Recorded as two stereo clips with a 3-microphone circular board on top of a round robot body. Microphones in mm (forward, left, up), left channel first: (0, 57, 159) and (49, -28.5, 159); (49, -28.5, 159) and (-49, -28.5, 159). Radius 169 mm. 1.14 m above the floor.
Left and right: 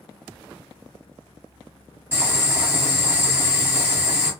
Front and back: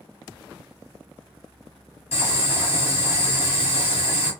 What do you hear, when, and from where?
2.1 s boiling: 5° left, 1.7 m